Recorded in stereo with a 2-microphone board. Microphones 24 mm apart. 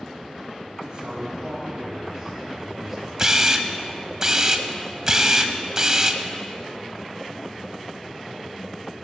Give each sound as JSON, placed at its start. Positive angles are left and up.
{"t": 0.8, "sound": "a man speaking", "side_deg": -30, "distance_m": 5.0}
{"t": 3.2, "sound": "a camera shutter", "side_deg": -25, "distance_m": 0.9}